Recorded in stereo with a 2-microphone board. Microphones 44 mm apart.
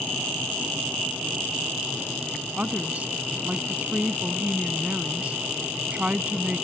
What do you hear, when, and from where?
2.6 s a woman speaking: 30° right (ahead or behind)